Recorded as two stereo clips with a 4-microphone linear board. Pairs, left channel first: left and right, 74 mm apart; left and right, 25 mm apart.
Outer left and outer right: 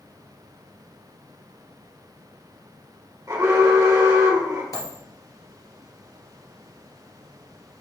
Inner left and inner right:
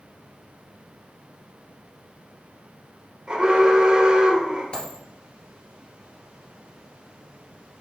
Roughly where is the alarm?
Right.